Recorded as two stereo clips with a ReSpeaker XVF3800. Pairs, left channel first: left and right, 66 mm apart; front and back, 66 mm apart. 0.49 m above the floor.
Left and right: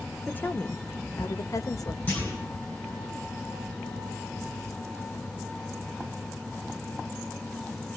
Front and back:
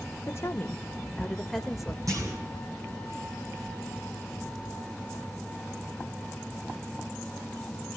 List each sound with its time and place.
0.2 s a woman speaking: 30° left, 1.2 m; by 2.0 s 95° left, 1.6 m
2.1 s a clunk: 150° left, 9 m